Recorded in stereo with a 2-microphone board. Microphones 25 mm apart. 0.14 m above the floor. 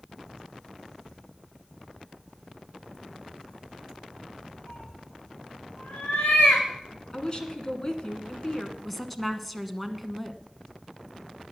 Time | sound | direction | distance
4.7 | a cat meowing | 75° left (ahead or behind) | 6.5 m
7.1 | a woman speaking | 30° left (ahead or behind) | 1.9 m
8.8 | a woman speaking | 5° left (ahead or behind) | 1.1 m